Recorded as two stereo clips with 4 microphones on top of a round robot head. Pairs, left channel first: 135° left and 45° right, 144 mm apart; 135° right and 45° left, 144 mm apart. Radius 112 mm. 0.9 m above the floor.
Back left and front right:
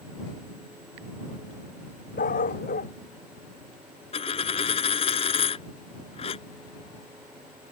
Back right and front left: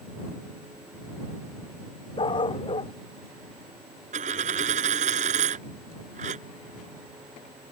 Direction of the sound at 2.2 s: 165° left.